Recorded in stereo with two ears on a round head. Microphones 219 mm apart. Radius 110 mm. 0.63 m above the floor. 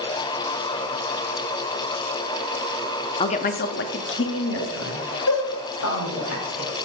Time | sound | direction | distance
3.2 | a woman speaking | 20° left (ahead or behind) | 0.7 m